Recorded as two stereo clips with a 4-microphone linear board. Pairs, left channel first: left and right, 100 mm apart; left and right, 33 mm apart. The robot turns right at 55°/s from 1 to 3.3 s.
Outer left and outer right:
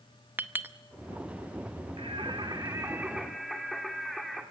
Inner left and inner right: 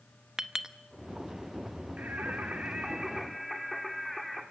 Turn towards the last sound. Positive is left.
turn(degrees=0)